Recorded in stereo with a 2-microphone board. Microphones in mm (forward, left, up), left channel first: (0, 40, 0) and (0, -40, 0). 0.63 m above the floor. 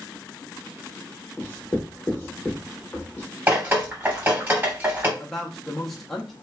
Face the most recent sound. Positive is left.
turn(degrees=0)  # may be behind; listen again after turning